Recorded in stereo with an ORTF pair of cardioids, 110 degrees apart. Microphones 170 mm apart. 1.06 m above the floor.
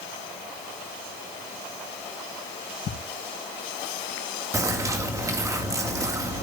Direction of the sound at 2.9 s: 50° left.